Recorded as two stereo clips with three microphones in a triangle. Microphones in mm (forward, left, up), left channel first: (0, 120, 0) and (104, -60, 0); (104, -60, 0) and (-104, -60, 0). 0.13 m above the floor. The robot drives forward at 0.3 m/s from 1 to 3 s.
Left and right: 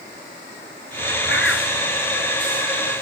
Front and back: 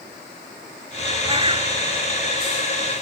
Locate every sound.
1.3 s a bird: 115° left; by 1.7 s 120° left